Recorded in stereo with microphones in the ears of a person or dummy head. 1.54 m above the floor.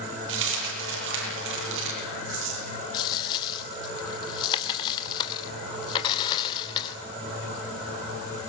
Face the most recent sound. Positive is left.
turn(degrees=25)  # may be behind; listen again after turning